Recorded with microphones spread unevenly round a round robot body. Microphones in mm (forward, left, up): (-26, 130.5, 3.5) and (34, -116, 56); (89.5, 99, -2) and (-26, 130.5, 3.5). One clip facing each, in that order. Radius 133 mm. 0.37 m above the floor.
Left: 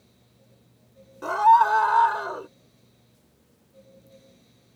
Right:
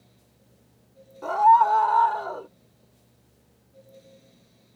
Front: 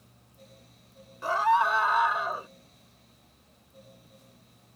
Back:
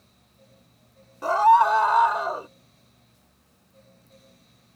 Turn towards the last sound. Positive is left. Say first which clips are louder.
# even, back 7 dB
turn(degrees=135)